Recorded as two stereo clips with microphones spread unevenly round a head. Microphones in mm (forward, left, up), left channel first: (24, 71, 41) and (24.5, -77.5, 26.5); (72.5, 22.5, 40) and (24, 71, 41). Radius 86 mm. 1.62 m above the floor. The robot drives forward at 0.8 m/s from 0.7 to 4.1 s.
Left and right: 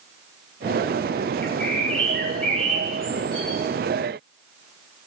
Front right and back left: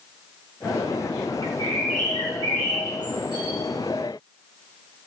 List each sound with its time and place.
1.4 s a bird: 170° left, 0.8 m; by 3.6 s 175° left, 2.5 m